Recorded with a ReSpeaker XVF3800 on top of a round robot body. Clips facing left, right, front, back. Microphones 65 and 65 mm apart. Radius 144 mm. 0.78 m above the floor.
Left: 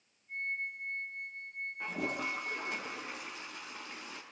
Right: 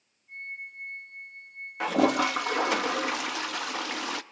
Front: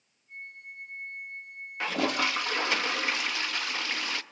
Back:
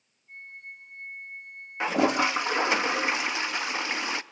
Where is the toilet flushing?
110° right, 0.5 m.